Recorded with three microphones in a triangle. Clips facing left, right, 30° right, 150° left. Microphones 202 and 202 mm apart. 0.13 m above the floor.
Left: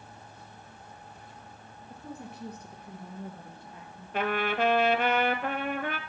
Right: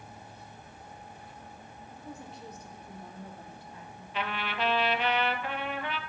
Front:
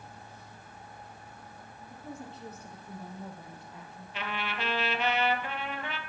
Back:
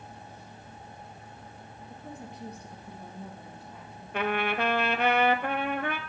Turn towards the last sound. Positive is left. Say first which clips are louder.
# left 7 dB, back 9 dB
turn(degrees=125)